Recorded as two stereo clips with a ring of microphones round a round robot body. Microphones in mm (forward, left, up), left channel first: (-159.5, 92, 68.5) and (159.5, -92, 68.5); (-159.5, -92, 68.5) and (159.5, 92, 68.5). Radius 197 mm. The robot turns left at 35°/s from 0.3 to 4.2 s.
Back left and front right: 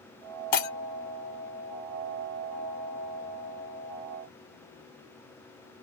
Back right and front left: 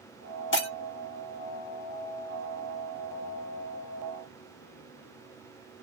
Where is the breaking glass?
150° left, 1.1 m; by 0.7 s 145° left, 1.1 m.